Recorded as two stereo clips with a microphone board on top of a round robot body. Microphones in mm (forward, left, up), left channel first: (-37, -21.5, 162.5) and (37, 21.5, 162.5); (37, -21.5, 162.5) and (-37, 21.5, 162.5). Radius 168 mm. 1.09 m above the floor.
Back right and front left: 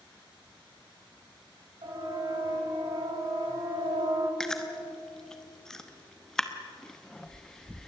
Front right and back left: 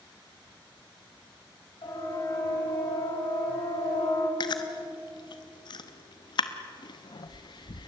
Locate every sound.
1.8 s a siren: 5° left, 7.5 m; by 4.3 s 5° right, 6 m
4.4 s chewing: 65° right, 0.9 m